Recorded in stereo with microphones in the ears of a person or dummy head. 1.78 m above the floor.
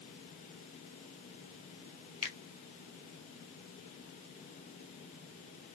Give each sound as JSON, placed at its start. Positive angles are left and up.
{"t": 2.2, "sound": "a finger snap", "side_deg": 30, "distance_m": 1.3}